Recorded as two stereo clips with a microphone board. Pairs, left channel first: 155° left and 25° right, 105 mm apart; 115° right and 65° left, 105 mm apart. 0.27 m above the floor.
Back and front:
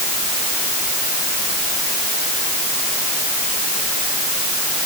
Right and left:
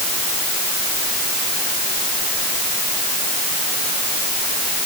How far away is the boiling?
No boiling in this recording.